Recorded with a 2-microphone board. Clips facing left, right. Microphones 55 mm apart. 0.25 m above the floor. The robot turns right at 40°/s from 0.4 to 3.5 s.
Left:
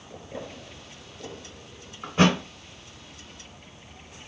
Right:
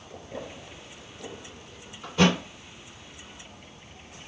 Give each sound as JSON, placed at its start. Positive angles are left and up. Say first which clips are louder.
{"t": 2.0, "sound": "a thud", "louder": "left 1 dB", "side_deg": 30, "distance_m": 1.3}